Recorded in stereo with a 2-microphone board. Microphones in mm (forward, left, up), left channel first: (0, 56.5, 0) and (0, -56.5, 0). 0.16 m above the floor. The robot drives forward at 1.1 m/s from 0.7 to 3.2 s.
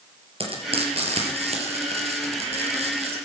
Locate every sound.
0.4 s frying: 60° right (ahead or behind), 4 m